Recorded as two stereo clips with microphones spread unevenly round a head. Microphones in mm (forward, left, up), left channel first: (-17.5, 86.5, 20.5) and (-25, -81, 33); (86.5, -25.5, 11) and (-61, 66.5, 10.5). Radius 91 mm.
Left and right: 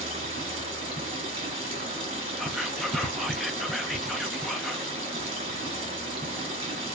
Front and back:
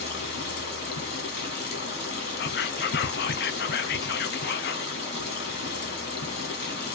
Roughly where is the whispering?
Ahead.